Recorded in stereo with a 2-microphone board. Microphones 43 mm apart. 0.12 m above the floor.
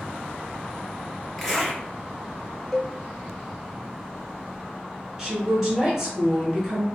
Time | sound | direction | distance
1.4 | a zipper | 5° left (ahead or behind) | 1.8 m
2.7 | a cowbell | 5° left (ahead or behind) | 0.5 m
5.2 | a woman speaking | 15° right (ahead or behind) | 1.3 m